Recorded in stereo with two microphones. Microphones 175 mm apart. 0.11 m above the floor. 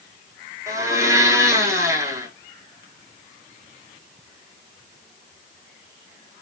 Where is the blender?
20° right (ahead or behind), 0.8 m.